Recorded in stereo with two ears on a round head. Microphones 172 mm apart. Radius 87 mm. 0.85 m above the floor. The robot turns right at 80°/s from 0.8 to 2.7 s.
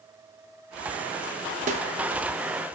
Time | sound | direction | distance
1.7 | a snare drum | 40° right (ahead or behind) | 0.6 m